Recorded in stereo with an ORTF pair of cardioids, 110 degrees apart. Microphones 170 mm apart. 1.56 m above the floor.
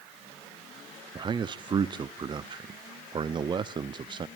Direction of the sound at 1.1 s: 30° right.